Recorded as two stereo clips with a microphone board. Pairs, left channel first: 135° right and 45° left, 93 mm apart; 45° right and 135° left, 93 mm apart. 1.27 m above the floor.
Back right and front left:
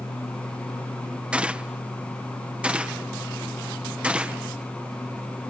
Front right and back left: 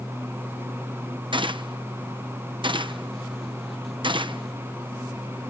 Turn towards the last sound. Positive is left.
turn(degrees=120)